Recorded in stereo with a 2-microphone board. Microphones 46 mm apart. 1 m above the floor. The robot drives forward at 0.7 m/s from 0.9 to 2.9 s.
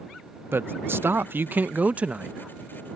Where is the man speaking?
50° right (ahead or behind); by 2.4 s 25° right (ahead or behind).